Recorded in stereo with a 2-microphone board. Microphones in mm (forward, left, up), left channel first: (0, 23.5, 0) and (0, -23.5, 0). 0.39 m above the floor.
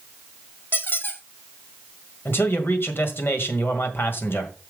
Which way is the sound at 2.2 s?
55° left (ahead or behind).